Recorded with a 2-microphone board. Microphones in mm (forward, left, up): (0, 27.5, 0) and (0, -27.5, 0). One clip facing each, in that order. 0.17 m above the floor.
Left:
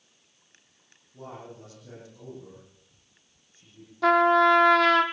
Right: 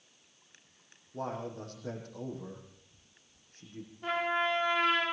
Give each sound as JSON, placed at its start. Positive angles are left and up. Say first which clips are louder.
{"t": 1.1, "sound": "a man speaking", "louder": "right 5 dB", "side_deg": -50, "distance_m": 7.5}
{"t": 4.0, "sound": "a trumpet", "louder": "left 12 dB", "side_deg": 80, "distance_m": 2.5}